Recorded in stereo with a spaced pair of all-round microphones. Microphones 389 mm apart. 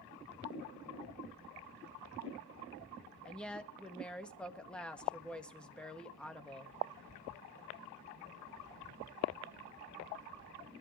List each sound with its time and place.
3.2 s a woman speaking: 5° left (ahead or behind), 1.6 m